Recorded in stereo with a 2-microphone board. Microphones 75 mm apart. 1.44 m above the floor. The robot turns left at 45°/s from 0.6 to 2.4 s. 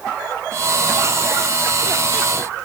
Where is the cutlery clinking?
No cutlery clinking in this recording.